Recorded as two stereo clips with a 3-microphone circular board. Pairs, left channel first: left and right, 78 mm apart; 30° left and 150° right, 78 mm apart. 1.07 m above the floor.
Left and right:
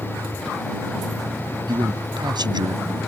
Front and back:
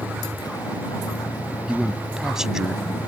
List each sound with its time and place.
0.0 s a vehicle: 5° left
1.7 s a man speaking: 65° right